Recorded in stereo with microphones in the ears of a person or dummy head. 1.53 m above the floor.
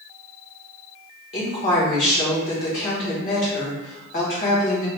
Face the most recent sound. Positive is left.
turn(degrees=45)  # may be behind; listen again after turning